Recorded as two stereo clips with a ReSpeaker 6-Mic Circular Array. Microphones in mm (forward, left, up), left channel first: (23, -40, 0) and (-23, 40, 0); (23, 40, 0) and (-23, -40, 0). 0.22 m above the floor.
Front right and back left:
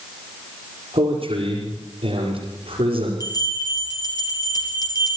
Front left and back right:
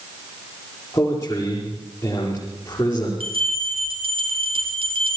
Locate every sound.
0.9 s a man speaking: 115° left, 5 m
3.2 s a bell: 105° right, 5 m